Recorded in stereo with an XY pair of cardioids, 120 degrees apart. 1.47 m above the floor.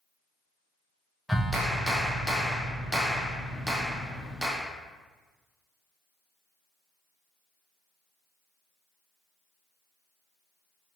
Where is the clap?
5° right, 0.8 m.